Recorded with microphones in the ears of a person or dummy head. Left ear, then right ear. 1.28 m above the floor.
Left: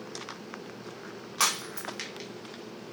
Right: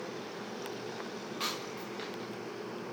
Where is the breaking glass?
50° left (ahead or behind), 0.9 m.